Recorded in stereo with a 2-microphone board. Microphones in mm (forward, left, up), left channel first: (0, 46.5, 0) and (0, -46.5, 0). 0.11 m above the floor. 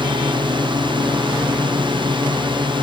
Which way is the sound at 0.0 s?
60° right (ahead or behind).